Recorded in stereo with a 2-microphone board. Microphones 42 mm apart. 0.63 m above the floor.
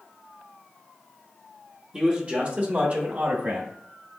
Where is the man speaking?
20° right (ahead or behind), 1.1 m; by 3.7 s 60° right (ahead or behind), 2 m.